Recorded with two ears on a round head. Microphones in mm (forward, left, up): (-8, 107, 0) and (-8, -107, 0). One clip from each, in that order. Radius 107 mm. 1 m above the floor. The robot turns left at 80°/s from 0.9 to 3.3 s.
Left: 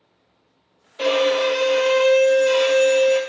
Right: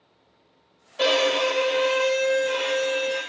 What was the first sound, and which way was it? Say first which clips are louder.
A violin: left 2 dB; 20° right (ahead or behind).